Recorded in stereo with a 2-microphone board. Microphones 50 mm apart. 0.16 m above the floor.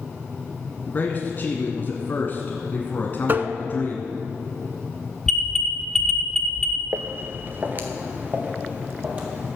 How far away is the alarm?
About 0.9 m.